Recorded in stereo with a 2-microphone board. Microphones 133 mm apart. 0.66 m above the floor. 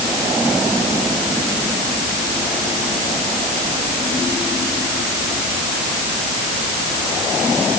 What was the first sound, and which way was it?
Only background noise.